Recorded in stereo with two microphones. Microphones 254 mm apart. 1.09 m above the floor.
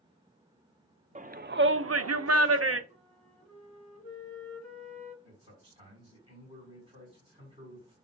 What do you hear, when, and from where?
1.1 s a shout: 30° right (ahead or behind), 0.6 m; by 2.8 s 60° right (ahead or behind), 0.7 m
2.9 s a flute: 70° left (ahead or behind), 1.4 m
5.2 s a man speaking: 20° right (ahead or behind), 3.5 m